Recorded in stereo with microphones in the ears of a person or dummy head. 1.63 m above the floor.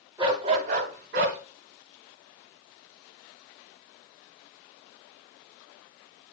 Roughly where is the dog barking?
Centre.